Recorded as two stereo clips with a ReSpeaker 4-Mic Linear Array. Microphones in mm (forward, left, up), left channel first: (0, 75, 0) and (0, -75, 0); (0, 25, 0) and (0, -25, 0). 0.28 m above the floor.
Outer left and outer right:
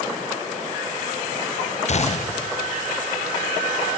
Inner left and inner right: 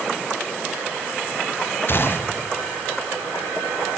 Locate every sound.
1.9 s a gunshot: 50° left (ahead or behind), 0.5 m